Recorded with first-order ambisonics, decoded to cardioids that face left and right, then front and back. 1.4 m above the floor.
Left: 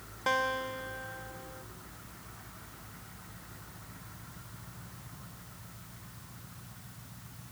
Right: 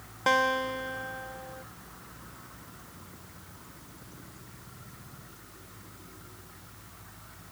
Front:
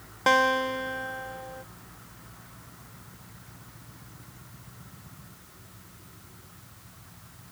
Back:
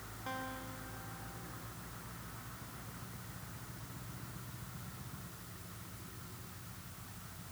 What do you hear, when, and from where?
0.3 s a guitar: 20° right